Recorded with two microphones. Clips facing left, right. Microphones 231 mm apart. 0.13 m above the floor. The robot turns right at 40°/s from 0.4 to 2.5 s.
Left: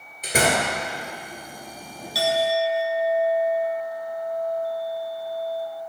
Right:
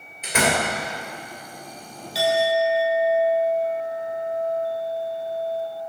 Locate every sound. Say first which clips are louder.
0.2 s a door slam: even; 40° left (ahead or behind), 1.8 m; by 0.7 s 50° left (ahead or behind), 1.8 m
2.1 s a clink: right 2 dB; 25° right (ahead or behind), 1.3 m; by 5.7 s 35° right (ahead or behind), 1.3 m